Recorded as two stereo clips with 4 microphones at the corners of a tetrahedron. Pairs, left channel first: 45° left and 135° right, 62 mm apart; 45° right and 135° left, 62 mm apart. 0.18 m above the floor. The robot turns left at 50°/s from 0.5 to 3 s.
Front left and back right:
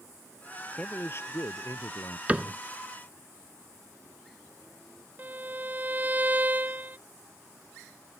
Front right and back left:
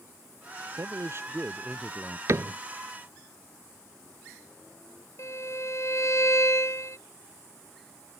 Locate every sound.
0.8 s a man speaking: 110° left; by 2.2 s 40° left
2.3 s a cupboard door: 160° left; by 2.6 s 145° left
5.2 s a violin: 75° right